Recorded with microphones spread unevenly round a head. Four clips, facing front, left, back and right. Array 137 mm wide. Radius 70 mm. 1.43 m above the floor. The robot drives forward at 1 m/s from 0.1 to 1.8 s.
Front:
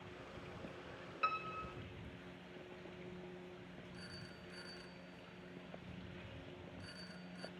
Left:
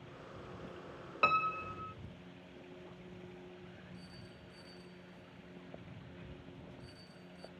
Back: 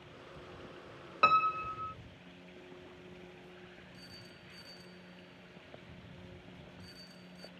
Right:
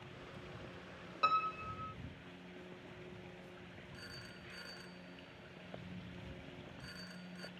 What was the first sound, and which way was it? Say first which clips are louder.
A piano: left 2 dB, back 13 dB; 150° left.